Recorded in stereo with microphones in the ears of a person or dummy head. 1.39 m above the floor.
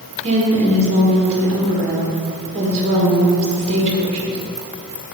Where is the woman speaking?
35° right (ahead or behind), 1.7 m.